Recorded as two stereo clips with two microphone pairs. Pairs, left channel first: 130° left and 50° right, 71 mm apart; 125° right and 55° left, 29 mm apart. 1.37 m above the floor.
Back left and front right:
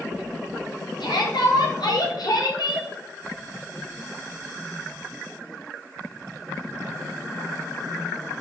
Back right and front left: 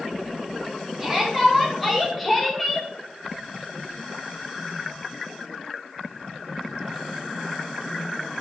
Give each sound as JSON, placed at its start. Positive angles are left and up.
{"t": 1.0, "sound": "a shout", "azimuth_deg": 140, "distance_m": 3.0}